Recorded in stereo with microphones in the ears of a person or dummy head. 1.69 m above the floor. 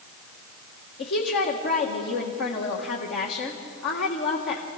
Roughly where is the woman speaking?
Left.